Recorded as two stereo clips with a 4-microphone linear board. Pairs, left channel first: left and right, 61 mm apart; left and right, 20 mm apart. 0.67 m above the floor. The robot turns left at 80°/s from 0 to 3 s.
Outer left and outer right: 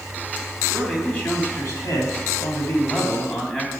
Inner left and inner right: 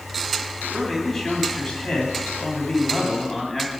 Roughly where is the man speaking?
Behind.